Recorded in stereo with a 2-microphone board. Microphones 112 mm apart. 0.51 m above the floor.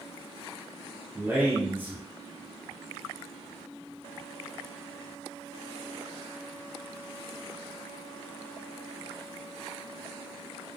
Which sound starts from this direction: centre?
A man speaking, at 1.1 s.